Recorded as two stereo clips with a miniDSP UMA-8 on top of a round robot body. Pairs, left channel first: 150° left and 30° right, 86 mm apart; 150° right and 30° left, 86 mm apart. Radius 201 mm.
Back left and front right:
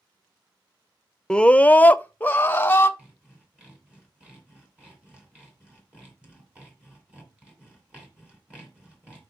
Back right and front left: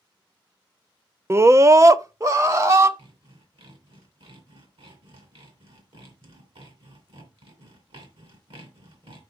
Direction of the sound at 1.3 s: 75° left.